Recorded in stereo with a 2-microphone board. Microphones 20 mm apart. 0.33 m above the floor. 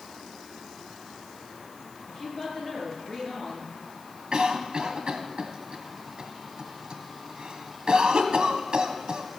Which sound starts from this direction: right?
A cough, at 4.3 s.